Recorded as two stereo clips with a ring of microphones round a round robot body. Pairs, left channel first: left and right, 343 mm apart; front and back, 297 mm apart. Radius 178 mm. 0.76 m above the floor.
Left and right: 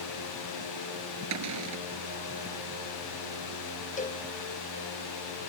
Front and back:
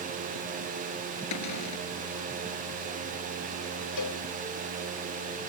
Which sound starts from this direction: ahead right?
A cupboard door, at 1.3 s.